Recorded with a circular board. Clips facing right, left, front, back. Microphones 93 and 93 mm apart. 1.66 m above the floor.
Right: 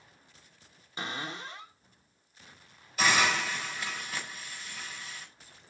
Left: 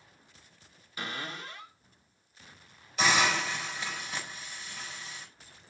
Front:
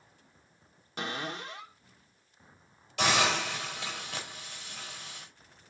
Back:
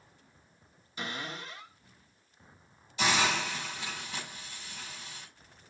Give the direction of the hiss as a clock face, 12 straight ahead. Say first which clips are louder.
Even, front 1 dB; 12 o'clock.